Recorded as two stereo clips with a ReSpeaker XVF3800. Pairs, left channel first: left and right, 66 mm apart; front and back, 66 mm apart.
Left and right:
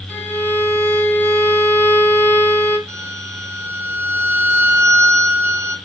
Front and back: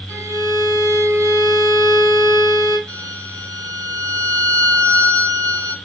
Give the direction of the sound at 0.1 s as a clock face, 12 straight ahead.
7 o'clock.